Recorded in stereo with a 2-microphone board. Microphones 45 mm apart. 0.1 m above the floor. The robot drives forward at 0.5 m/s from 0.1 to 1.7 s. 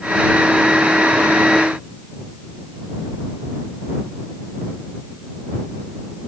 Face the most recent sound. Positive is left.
No sound to turn to.